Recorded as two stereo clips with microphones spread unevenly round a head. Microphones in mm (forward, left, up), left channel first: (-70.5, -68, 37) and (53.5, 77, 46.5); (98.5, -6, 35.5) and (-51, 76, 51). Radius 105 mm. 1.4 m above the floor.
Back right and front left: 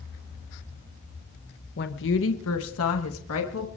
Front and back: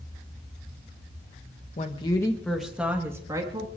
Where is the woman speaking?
90° right, 1.3 m; by 3.7 s 140° right, 2.5 m.